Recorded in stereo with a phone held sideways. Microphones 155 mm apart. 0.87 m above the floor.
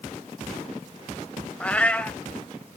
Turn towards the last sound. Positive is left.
turn(degrees=10)  # may be behind; listen again after turning